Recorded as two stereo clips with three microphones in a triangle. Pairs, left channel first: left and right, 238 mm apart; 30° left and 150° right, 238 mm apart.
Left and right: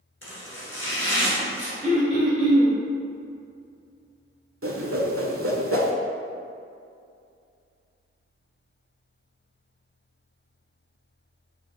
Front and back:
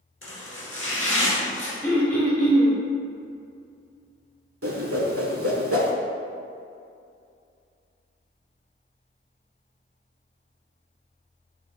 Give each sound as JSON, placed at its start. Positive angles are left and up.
{"t": 0.2, "sound": "chopping", "azimuth_deg": 60, "distance_m": 1.6}
{"t": 1.8, "sound": "throat clearing", "azimuth_deg": -50, "distance_m": 1.3}
{"t": 4.6, "sound": "a whoosh", "azimuth_deg": -120, "distance_m": 0.5}